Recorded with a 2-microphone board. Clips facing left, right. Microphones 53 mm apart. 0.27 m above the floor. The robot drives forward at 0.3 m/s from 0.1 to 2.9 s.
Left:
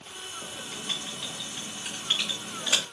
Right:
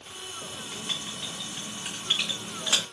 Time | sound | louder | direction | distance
0.4 | writing | even | 25° right (ahead or behind) | 1.7 m